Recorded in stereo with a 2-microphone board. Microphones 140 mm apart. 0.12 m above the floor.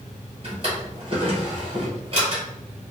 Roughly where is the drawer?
Right.